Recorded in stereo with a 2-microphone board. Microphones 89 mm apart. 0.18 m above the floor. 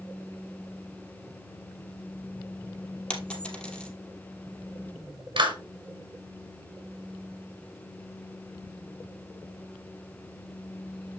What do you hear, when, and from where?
3.1 s a dropped coin: 10° left (ahead or behind), 2.5 m
5.4 s a clap: 65° right (ahead or behind), 3 m